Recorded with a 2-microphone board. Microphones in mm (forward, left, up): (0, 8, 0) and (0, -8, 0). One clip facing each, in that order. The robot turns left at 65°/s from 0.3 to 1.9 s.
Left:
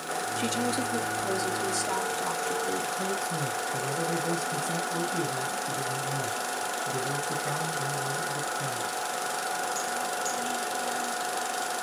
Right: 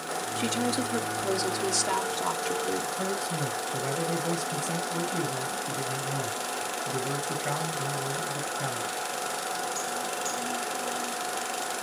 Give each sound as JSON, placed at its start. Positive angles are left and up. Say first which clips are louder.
{"t": 0.4, "sound": "a woman speaking", "louder": "right 1 dB", "azimuth_deg": 0, "distance_m": 1.2}
{"t": 3.0, "sound": "a man speaking", "louder": "even", "side_deg": -80, "distance_m": 3.5}